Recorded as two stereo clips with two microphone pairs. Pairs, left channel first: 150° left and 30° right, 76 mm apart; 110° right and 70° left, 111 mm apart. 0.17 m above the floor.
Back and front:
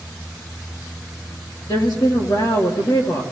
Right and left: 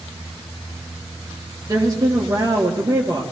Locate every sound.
1.7 s a woman speaking: 125° left, 3 m